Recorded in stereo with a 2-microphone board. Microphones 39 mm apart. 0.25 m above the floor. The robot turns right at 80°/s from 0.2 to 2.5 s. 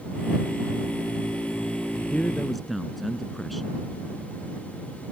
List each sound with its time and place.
2.1 s a man speaking: 145° left; by 3.9 s straight behind